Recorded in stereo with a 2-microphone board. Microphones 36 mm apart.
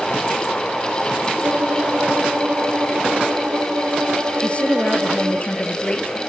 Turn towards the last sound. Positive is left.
turn(degrees=35)  # may be behind; listen again after turning